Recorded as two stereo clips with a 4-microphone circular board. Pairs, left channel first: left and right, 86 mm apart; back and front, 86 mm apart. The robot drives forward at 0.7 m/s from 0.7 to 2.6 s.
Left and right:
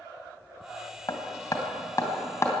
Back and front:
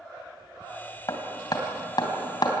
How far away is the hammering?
About 3 m.